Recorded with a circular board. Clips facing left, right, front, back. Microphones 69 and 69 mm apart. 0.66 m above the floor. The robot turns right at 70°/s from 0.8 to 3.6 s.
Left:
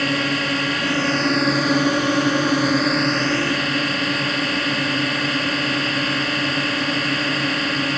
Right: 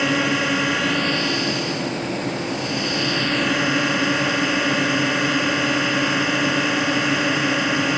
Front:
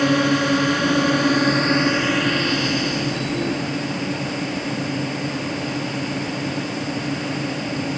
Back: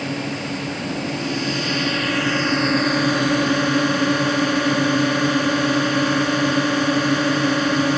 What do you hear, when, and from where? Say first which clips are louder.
0.0 s a drone: right 1 dB, front 8 dB; 5° right; by 8.0 s 170° right